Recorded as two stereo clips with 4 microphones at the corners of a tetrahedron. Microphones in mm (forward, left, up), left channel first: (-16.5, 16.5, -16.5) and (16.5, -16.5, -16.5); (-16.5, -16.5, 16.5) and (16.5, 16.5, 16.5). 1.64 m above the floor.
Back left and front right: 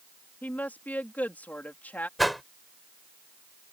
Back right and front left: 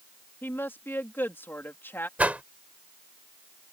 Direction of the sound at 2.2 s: 40° left.